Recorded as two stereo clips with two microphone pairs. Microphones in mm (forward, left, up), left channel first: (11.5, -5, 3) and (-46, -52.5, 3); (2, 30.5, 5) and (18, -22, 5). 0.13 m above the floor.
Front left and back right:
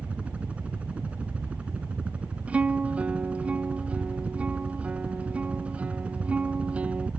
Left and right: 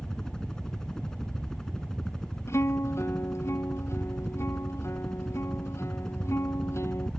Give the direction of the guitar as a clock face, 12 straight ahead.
7 o'clock.